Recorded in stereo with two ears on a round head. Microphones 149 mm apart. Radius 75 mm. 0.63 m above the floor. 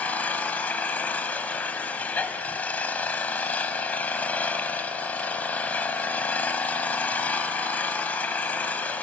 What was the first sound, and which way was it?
An engine running, 10° left (ahead or behind).